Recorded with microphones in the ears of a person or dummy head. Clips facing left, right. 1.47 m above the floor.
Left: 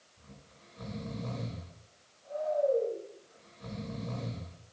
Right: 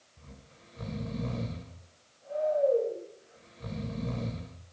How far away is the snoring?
About 2.5 m.